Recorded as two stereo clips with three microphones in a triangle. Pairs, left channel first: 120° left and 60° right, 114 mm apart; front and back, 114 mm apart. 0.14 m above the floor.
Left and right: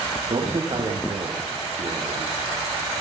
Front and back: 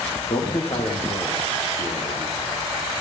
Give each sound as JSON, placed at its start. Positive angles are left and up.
{"t": 0.3, "sound": "a man speaking", "azimuth_deg": -30, "distance_m": 6.5}